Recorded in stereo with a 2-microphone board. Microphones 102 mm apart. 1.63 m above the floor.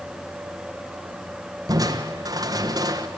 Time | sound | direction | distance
1.7 | crushing | 40° right (ahead or behind) | 1.3 m